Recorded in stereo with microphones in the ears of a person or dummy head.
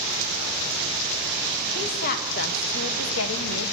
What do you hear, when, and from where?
1.8 s a woman speaking: 50° left (ahead or behind), 2.5 m; by 3.7 s 70° left (ahead or behind), 1.1 m